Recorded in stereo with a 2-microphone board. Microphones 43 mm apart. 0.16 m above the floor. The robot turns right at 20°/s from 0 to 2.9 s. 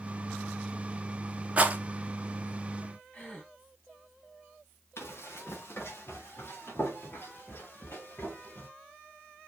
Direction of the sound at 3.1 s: 35° left (ahead or behind).